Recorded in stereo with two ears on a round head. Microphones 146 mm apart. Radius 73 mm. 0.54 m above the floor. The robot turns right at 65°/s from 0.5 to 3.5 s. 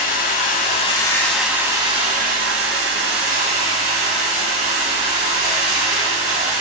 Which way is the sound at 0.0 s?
120° left.